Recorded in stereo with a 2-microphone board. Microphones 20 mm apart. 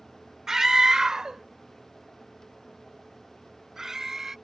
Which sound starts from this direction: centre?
A scream, at 0.5 s.